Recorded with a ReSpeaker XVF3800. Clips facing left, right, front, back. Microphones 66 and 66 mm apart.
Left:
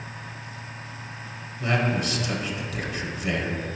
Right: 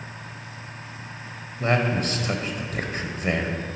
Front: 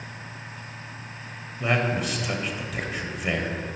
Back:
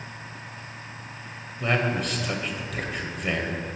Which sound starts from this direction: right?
A man speaking, at 1.6 s.